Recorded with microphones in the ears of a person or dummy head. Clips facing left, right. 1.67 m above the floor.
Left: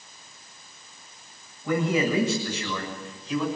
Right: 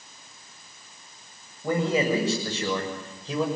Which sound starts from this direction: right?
A man speaking, at 1.6 s.